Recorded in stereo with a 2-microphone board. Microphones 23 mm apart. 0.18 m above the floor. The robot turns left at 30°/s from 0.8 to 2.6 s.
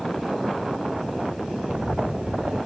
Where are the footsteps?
30° right (ahead or behind), 0.6 m; by 2.6 s 85° right, 1.3 m.